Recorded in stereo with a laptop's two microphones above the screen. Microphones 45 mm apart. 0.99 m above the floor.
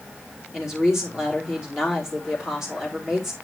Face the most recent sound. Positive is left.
turn(degrees=-15)  # may be behind; listen again after turning